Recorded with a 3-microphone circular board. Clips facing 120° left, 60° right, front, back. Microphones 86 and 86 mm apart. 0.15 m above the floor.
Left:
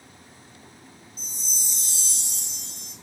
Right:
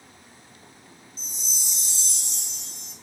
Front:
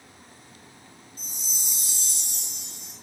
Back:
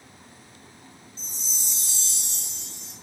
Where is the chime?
75° left, 2.5 m.